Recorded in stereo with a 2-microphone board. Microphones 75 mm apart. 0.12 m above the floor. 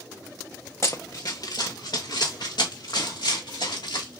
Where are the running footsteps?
40° left (ahead or behind), 0.6 m; by 4.2 s 80° left, 2.5 m.